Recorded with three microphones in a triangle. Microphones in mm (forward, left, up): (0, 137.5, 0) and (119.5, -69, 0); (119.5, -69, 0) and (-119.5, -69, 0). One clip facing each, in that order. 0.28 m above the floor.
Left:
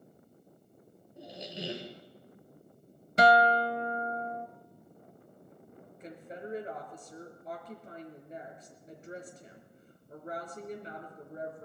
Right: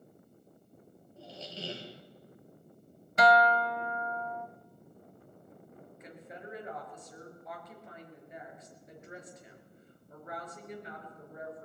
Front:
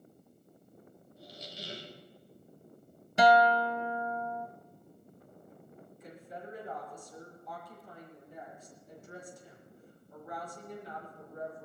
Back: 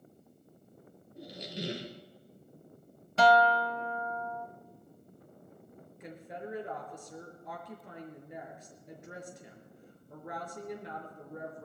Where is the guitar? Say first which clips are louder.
Left 1 dB, front 1 dB; 65° left, 0.6 m.